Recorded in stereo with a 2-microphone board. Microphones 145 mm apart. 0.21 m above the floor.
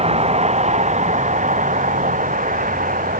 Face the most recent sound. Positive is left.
turn(degrees=-70)  # may be behind; listen again after turning